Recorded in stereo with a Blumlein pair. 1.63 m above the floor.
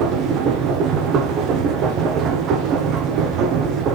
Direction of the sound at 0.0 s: 35° right.